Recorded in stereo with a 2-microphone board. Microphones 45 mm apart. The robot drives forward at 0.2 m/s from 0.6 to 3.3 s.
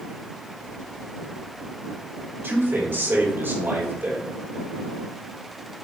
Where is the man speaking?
60° right (ahead or behind), 2.5 m; by 4.3 s 55° right (ahead or behind), 2.5 m.